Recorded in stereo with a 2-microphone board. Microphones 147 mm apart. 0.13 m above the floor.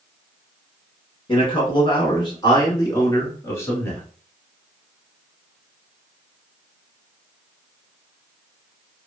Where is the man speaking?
35° left (ahead or behind), 1.3 m; by 4.0 s 15° left (ahead or behind), 1.4 m.